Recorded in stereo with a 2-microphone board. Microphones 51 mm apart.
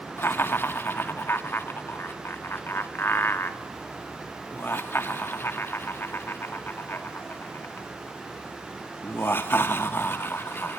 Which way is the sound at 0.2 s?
40° left (ahead or behind).